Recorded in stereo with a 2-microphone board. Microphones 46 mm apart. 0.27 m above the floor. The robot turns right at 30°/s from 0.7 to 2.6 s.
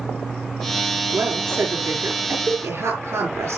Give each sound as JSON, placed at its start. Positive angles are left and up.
{"t": 1.1, "sound": "a woman speaking", "azimuth_deg": -140, "distance_m": 5.5}